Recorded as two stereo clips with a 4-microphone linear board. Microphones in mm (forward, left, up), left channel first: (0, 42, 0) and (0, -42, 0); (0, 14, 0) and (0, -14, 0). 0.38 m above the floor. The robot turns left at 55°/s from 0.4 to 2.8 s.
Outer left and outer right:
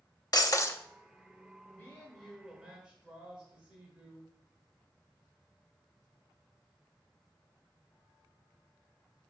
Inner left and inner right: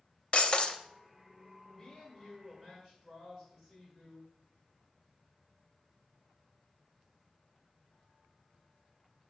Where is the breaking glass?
50° left (ahead or behind), 0.6 m; by 0.8 s 30° left (ahead or behind), 0.6 m.